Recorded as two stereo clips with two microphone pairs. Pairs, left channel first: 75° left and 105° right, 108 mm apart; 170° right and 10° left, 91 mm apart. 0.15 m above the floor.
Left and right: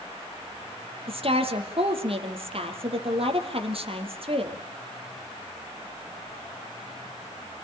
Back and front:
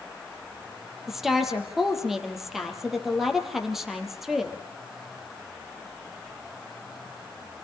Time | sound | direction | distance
1.1 | a woman speaking | 75° right | 4 m